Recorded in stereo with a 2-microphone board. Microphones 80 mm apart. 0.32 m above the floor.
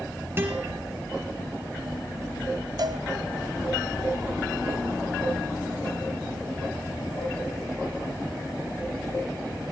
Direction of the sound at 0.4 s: 30° right (ahead or behind).